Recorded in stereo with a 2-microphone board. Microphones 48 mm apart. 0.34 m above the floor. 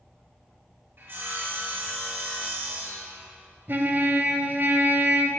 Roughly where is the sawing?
Right.